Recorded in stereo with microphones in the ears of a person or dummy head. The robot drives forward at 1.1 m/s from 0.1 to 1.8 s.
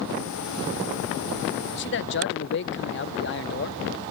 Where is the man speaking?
55° left (ahead or behind).